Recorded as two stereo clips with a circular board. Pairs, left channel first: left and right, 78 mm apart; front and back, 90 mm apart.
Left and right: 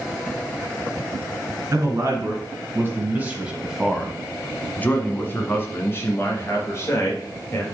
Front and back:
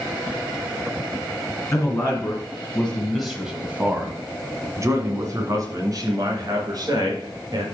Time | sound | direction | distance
1.7 | a man speaking | 55° right | 1.7 m